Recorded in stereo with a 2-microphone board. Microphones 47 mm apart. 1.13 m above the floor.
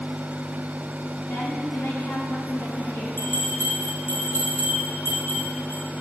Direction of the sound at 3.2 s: 80° left.